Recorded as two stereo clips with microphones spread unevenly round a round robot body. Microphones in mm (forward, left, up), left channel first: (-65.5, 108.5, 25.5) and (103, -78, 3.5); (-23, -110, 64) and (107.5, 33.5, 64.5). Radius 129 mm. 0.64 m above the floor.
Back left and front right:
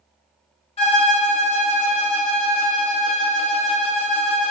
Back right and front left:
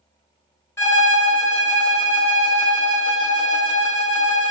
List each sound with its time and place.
0.8 s a violin: 170° left, 1.1 m